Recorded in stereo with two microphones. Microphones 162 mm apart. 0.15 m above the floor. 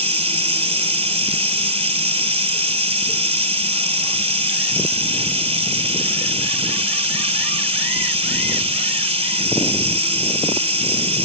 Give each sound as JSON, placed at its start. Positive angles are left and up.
{"t": 0.0, "sound": "running water", "side_deg": -35, "distance_m": 1.7}